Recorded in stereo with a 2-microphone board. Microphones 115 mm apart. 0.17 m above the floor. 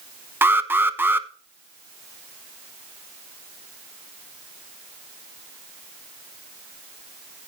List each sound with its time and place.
0.4 s an alarm: 20° right (ahead or behind), 0.8 m